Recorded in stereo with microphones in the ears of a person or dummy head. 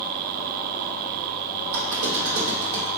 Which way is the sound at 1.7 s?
70° right (ahead or behind).